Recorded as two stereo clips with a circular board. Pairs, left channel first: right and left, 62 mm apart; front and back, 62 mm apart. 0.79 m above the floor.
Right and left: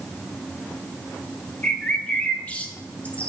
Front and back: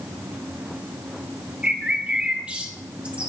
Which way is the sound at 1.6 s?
130° right.